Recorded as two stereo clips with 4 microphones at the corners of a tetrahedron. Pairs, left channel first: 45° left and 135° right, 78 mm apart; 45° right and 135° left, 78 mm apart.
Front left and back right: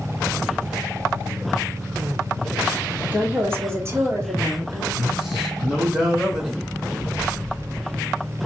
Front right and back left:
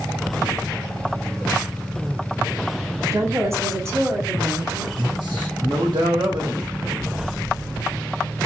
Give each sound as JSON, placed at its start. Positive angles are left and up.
{"t": 3.1, "sound": "a woman speaking", "azimuth_deg": 165, "distance_m": 1.4}
{"t": 5.0, "sound": "a man speaking", "azimuth_deg": 150, "distance_m": 1.4}